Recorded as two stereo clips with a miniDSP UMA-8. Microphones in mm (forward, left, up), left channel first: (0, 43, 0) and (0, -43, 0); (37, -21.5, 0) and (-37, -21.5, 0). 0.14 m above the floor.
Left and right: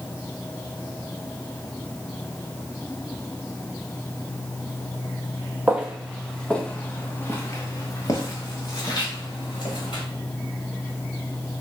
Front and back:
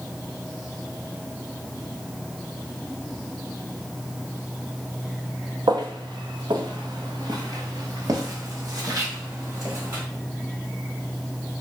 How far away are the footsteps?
About 0.9 m.